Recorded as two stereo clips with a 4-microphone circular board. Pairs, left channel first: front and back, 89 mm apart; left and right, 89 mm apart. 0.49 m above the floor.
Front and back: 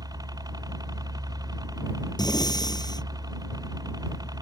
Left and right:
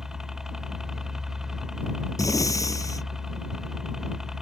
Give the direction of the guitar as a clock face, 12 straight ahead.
I don't hear a guitar.